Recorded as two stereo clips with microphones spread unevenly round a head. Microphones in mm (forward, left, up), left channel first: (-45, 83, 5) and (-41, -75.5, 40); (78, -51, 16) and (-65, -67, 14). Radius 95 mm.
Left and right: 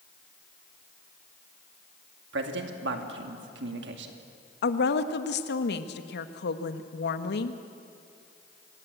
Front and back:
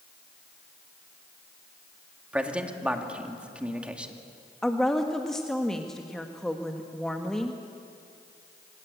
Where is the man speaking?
90° right, 2.5 m.